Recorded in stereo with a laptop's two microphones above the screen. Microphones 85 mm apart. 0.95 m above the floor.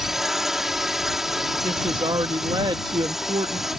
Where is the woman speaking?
65° right (ahead or behind).